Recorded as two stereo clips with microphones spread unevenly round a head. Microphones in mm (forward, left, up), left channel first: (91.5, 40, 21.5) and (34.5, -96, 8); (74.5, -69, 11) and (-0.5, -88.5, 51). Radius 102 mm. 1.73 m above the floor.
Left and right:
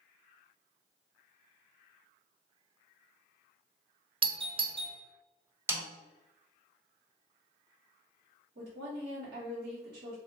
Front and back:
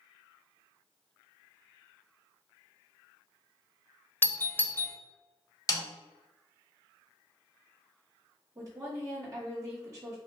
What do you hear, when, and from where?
4.2 s a doorbell: 55° right, 0.6 m
5.7 s a snare drum: 40° right, 1.1 m
8.6 s a woman speaking: 130° right, 1.3 m